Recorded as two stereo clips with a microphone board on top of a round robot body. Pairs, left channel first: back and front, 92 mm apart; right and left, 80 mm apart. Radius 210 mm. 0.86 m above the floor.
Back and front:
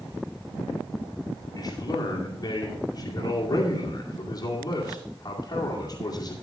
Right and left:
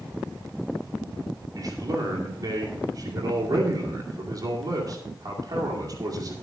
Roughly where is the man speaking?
Behind left.